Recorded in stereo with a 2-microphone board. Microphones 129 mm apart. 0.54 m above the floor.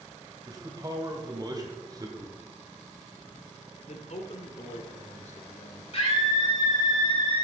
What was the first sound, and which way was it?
A man speaking, 30° right (ahead or behind).